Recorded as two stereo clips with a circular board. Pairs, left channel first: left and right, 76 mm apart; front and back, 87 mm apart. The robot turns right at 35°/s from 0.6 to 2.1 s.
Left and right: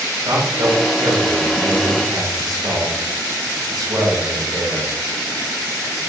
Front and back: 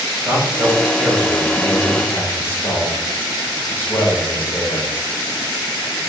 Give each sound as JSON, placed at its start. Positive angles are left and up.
{"t": 0.2, "sound": "a man speaking", "azimuth_deg": -120, "distance_m": 2.5}